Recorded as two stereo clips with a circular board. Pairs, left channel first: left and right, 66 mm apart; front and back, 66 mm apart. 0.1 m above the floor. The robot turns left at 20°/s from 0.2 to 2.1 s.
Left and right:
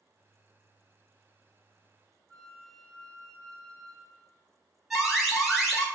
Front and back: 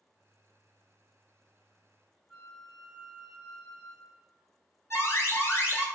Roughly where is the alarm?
Ahead.